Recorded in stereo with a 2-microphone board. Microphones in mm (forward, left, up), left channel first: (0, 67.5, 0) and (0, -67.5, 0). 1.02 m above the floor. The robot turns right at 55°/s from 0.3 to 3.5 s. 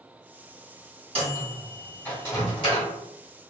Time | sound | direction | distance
1.1 | a microwave | 40° right (ahead or behind) | 1.5 m